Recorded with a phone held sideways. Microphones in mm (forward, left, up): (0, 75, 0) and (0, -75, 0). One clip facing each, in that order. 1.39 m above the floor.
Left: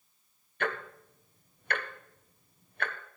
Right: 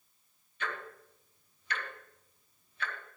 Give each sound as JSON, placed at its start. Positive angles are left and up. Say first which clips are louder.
{"t": 0.6, "sound": "ticking", "louder": "left 6 dB", "side_deg": 60, "distance_m": 0.9}